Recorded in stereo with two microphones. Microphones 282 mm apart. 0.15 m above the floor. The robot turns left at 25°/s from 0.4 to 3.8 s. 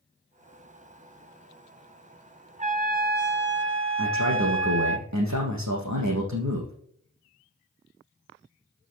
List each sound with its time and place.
2.6 s a trumpet: 30° right, 0.8 m; by 5.0 s 60° right, 0.8 m
4.0 s a man speaking: 80° right, 6.5 m